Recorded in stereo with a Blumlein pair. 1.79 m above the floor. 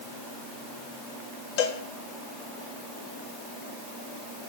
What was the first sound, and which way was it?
A cowbell, 45° left.